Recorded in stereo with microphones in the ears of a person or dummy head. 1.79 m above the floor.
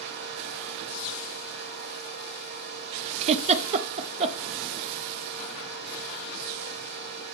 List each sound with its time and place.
0.0 s a fan: 60° right (ahead or behind), 3.5 m
3.2 s a giggle: 35° right (ahead or behind), 0.8 m